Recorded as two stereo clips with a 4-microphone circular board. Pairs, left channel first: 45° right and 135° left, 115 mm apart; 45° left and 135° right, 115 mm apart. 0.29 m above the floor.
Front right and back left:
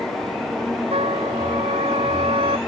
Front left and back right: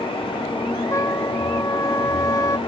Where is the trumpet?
105° left.